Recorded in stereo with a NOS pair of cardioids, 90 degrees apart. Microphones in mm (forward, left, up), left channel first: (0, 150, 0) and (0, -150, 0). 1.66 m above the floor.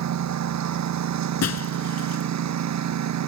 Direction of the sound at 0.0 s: 65° right.